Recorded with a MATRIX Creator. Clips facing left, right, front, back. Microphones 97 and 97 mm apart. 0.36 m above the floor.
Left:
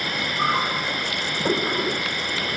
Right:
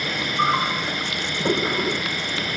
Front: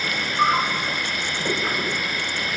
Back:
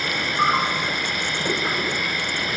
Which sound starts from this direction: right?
An insect, at 0.0 s.